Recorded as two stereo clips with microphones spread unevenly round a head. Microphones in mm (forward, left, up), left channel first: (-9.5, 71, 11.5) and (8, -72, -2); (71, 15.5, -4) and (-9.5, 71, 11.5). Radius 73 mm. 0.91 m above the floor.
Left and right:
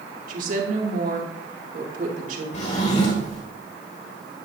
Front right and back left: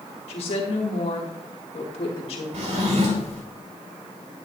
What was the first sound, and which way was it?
A woman speaking, 55° right.